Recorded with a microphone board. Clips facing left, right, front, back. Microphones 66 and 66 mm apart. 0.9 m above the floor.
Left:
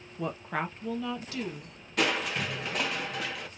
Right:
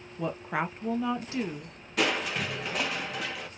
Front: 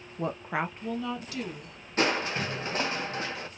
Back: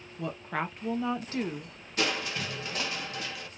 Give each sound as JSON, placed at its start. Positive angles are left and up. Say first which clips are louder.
{"t": 0.2, "sound": "a woman speaking", "louder": "right 2 dB, front 3 dB", "azimuth_deg": 0, "distance_m": 0.7}
{"t": 2.0, "sound": "crushing", "louder": "even, front 4 dB", "azimuth_deg": 0, "distance_m": 0.8}